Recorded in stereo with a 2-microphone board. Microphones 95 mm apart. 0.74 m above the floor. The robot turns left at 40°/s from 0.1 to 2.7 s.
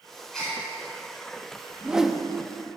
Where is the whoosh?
15° right (ahead or behind), 0.7 m; by 2.2 s centre (ahead or behind), 0.7 m.